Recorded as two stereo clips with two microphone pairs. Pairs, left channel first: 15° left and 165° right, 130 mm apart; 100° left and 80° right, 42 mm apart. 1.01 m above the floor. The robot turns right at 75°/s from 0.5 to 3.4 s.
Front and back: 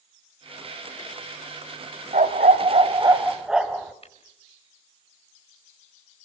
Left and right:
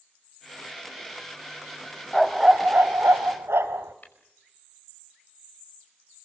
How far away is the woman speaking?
I don't hear a woman speaking.